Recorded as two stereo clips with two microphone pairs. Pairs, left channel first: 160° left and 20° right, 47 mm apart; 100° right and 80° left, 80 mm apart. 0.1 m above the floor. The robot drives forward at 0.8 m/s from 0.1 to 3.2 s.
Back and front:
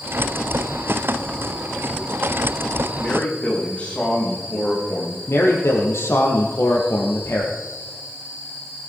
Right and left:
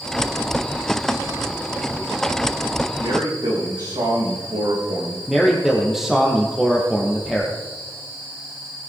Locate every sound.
3.0 s a man speaking: 95° left, 6 m; by 5.2 s 100° left, 6 m
5.3 s a man speaking: 165° left, 3.5 m